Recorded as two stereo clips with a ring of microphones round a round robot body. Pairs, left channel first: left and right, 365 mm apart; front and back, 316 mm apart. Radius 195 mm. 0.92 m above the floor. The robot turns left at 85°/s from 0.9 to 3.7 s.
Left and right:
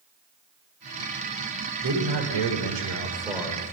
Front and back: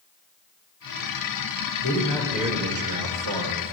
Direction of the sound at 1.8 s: 45° right.